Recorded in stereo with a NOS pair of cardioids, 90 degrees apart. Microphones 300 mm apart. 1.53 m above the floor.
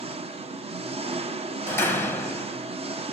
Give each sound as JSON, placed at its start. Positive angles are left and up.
{"t": 0.0, "sound": "an engine running", "azimuth_deg": -20, "distance_m": 0.8}
{"t": 1.7, "sound": "a door slam", "azimuth_deg": 5, "distance_m": 1.1}